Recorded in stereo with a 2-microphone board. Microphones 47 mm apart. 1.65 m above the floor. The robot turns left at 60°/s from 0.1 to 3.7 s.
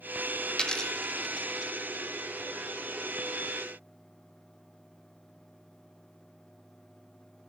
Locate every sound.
0.5 s a dropped coin: 20° left (ahead or behind), 1.1 m; by 1.7 s 10° right (ahead or behind), 1.1 m